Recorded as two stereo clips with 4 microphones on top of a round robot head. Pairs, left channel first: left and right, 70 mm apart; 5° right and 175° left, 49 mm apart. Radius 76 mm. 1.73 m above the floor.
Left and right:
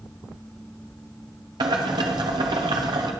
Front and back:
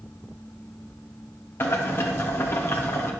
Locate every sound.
1.6 s boiling: 60° right, 1.0 m